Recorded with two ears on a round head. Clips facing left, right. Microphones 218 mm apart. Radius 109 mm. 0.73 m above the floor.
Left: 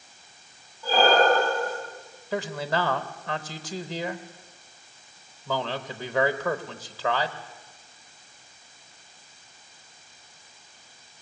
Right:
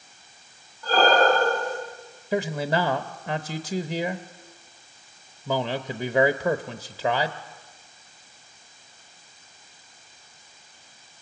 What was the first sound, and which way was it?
Breathing, 5° left (ahead or behind).